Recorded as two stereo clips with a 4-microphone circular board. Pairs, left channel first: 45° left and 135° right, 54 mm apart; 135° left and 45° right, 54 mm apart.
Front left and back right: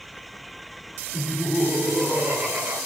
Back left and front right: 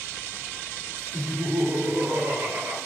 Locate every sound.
1.1 s laughter: 50° right, 2.5 m; by 2.8 s 80° right, 3.5 m